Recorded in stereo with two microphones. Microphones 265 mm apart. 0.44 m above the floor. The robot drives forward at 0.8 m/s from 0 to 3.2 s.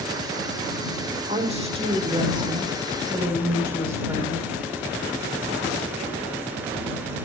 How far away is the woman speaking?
About 1.1 m.